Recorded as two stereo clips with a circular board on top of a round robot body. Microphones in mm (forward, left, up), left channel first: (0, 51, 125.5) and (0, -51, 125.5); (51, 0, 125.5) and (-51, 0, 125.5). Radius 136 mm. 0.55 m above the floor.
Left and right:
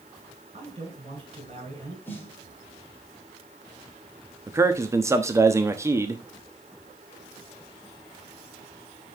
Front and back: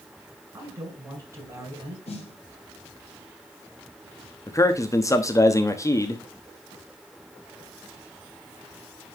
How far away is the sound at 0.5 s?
About 5.5 m.